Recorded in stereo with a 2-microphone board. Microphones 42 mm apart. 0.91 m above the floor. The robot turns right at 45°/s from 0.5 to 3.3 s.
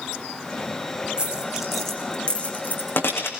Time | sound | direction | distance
1.2 | a dropped coin | 25° right (ahead or behind) | 5 m